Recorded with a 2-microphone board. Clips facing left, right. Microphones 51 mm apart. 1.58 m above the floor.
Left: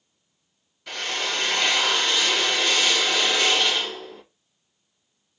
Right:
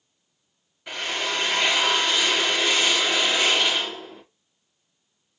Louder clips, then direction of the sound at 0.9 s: Right 1 dB; 15° right (ahead or behind).